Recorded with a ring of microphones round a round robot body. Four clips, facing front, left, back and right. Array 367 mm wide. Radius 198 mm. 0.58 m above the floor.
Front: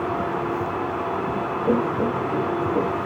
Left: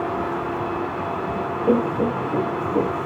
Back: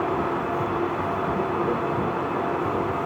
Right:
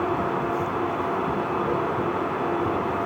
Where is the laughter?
65° left.